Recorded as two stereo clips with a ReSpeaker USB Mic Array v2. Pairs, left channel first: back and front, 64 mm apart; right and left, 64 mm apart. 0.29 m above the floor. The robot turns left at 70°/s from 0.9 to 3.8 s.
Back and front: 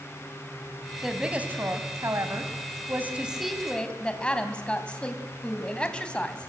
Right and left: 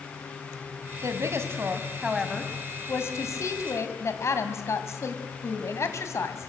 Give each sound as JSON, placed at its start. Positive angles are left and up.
{"t": 1.0, "sound": "a woman speaking", "azimuth_deg": 85, "distance_m": 2.0}